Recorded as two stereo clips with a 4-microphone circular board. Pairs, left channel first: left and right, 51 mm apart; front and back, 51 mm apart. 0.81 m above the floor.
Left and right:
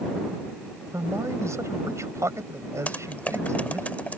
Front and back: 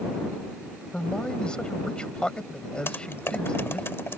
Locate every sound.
0.9 s a man speaking: 70° right
2.9 s typing on a keyboard: 35° left